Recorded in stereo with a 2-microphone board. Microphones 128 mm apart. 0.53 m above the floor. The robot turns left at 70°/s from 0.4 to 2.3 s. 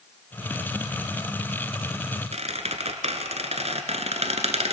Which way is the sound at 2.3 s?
60° right (ahead or behind).